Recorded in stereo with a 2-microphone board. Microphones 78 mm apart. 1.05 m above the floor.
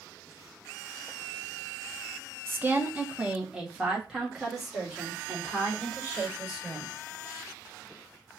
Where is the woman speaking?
30° right (ahead or behind), 0.6 m; by 6.9 s centre (ahead or behind), 4 m.